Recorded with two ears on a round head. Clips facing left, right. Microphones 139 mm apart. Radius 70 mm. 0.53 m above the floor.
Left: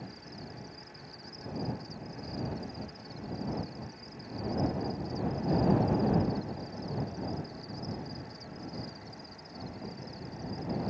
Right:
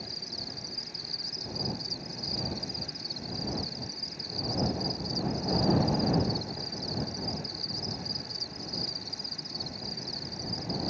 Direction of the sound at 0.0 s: 80° right.